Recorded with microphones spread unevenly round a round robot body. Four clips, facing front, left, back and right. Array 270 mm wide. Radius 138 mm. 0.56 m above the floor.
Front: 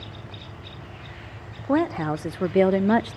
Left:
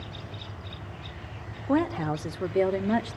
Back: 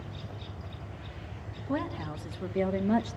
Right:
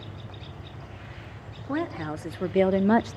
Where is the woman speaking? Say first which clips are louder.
Left 4 dB, front 11 dB; 20° left, 1.3 m; by 3.2 s 55° right, 0.7 m.